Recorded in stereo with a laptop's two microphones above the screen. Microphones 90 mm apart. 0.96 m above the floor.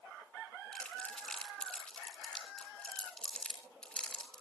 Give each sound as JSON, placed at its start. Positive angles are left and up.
{"t": 0.7, "sound": "crumpling", "side_deg": 10, "distance_m": 3.0}